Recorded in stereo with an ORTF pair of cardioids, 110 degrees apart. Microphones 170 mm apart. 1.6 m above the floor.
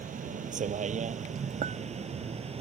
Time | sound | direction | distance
0.0 | a vehicle | 45° right | ?
1.6 | a clink | 55° right | ?